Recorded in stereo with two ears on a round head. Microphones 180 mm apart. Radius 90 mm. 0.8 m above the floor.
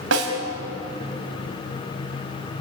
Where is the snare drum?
70° right (ahead or behind), 5 m.